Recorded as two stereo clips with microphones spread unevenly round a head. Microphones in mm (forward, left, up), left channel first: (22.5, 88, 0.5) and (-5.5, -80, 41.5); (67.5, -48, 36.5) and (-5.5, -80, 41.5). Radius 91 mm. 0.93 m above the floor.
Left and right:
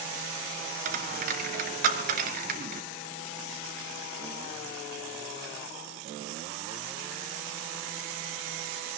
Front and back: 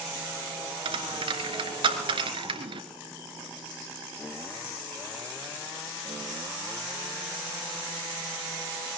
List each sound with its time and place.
0.8 s a dropped coin: 140° right, 3 m